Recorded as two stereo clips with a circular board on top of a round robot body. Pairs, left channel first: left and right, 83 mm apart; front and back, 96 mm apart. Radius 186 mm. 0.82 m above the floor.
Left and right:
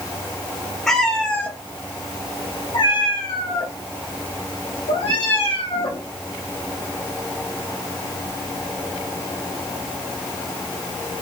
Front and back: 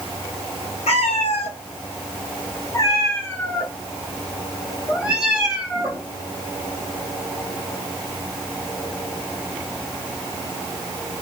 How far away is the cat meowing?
About 1.3 m.